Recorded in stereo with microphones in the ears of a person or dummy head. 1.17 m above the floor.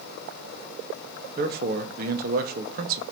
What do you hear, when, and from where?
1.4 s a man speaking: 50° right (ahead or behind), 1.0 m